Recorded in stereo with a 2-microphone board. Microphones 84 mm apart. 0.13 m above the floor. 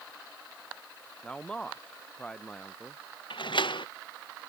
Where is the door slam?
75° left (ahead or behind).